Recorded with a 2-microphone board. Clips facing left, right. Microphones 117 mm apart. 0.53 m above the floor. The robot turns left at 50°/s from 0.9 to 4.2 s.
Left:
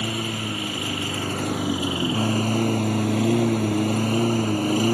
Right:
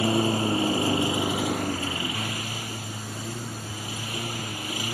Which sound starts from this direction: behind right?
A lawn mower, at 0.0 s.